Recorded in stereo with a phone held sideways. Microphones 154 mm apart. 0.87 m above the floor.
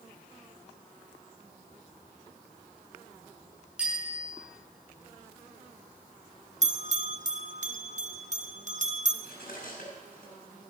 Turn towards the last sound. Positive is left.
turn(degrees=70)  # may be behind; listen again after turning